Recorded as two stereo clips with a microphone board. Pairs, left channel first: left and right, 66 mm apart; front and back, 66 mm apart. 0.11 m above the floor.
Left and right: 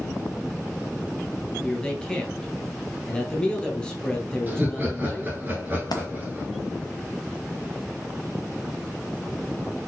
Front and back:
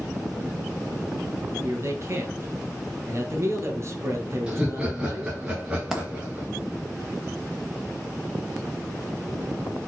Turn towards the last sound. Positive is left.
turn(degrees=95)